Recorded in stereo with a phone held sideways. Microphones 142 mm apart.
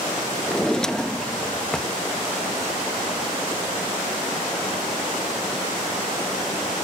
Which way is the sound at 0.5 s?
5° left (ahead or behind).